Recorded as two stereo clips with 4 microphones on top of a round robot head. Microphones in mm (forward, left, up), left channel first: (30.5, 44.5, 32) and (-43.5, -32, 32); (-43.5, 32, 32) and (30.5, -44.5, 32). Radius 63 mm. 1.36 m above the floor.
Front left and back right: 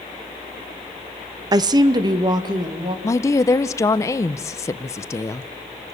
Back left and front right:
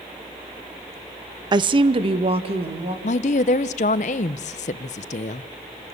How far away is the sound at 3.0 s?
About 0.6 m.